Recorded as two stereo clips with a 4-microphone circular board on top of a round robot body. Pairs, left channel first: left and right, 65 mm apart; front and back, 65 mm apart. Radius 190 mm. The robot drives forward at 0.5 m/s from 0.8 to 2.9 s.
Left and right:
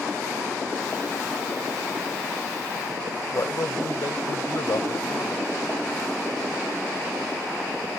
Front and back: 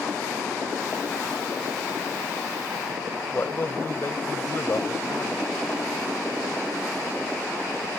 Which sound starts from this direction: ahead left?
A man speaking, at 3.3 s.